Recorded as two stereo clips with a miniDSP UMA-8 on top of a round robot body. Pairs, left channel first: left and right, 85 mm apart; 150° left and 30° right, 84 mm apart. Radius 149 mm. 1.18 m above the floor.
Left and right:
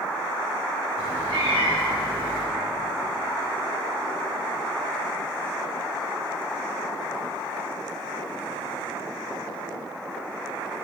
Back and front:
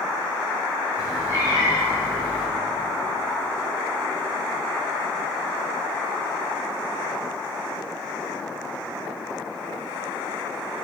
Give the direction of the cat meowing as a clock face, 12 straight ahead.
3 o'clock.